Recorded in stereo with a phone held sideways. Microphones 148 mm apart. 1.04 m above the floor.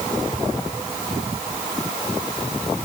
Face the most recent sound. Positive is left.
No sound to turn to.